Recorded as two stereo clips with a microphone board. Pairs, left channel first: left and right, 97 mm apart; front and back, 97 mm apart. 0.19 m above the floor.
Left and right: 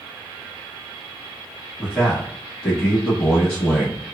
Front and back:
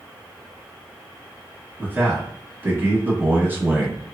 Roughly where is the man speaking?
Behind.